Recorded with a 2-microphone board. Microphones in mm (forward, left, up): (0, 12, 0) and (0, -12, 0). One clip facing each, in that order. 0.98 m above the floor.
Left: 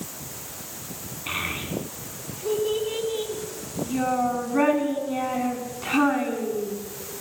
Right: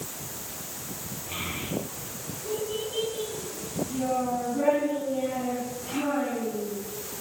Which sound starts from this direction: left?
A child speaking, at 1.3 s.